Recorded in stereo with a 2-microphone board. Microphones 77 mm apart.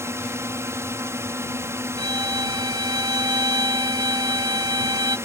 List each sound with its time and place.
0.0 s a drone: 35° right (ahead or behind)
2.0 s a violin: 65° right (ahead or behind)